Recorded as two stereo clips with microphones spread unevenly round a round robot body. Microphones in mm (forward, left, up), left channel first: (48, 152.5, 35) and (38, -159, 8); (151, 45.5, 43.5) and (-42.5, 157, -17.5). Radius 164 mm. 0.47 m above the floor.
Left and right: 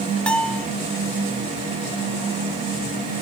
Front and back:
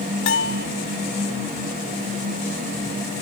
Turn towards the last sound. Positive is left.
turn(degrees=0)